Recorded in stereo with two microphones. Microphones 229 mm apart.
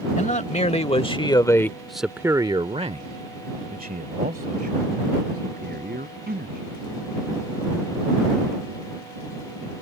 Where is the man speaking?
35° left (ahead or behind); by 6.7 s 45° right (ahead or behind).